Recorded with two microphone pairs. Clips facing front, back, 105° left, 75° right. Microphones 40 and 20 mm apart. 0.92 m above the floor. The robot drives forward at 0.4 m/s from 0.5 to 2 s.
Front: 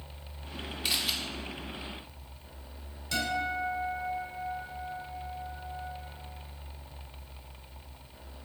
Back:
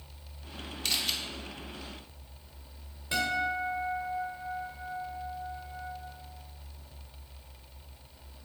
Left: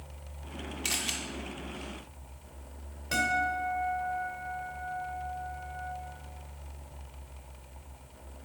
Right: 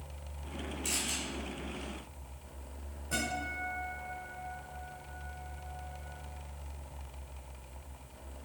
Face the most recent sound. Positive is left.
turn(degrees=115)